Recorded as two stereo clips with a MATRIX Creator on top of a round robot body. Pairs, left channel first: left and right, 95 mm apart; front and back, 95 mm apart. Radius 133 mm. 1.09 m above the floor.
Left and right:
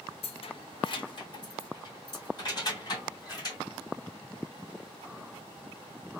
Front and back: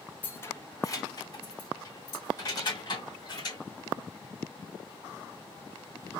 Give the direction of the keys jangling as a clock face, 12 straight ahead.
10 o'clock.